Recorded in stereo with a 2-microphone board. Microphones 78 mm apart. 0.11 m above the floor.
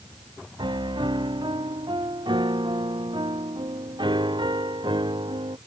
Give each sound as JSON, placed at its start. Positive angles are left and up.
{"t": 0.6, "sound": "a piano", "side_deg": -85}